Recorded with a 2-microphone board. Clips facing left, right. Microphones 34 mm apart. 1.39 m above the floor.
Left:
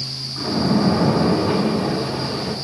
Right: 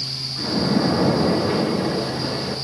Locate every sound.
0.4 s a splash: 15° left (ahead or behind), 5.5 m